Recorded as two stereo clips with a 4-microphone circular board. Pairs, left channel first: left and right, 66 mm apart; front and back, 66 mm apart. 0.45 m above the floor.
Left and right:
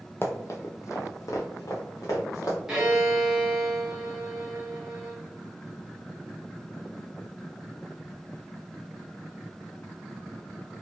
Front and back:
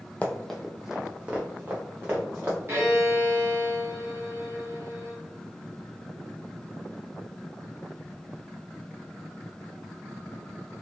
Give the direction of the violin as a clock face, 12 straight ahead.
6 o'clock.